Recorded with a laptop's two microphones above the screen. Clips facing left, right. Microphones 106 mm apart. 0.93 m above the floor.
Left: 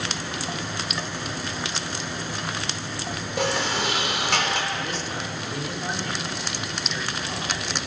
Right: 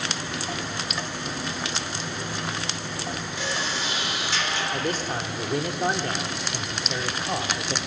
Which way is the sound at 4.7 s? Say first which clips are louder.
Right 3 dB; 50° right (ahead or behind).